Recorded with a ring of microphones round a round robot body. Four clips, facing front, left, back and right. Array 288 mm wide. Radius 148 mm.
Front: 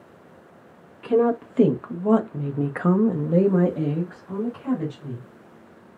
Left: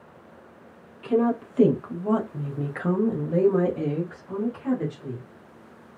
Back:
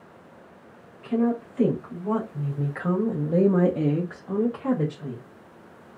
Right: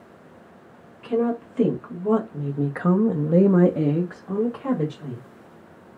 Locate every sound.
1.0 s a woman speaking: 10° left, 1.5 m; by 5.2 s 135° right, 1.3 m